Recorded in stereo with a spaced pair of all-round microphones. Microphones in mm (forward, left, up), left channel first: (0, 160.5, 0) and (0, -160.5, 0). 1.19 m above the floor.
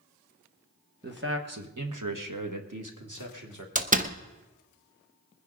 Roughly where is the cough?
No cough in this recording.